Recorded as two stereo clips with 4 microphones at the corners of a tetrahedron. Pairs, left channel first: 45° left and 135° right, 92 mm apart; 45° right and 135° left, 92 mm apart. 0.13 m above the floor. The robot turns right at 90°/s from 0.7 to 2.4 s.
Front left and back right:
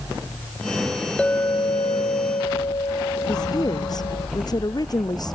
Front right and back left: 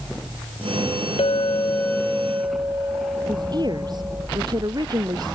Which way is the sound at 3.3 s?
90° left.